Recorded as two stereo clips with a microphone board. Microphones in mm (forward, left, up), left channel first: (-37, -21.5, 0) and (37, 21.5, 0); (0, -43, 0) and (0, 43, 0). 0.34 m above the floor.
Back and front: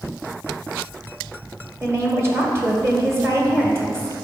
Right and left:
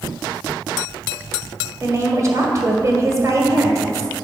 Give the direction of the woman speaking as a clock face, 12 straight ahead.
10 o'clock.